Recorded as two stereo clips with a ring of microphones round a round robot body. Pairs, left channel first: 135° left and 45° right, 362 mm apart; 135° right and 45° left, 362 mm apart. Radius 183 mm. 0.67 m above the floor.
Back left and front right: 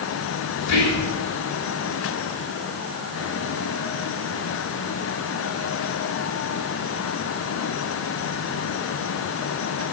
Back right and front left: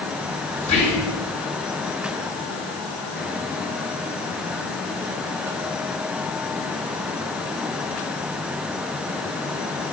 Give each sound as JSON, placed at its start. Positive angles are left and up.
{"t": 0.6, "sound": "whispering", "azimuth_deg": 155, "distance_m": 2.5}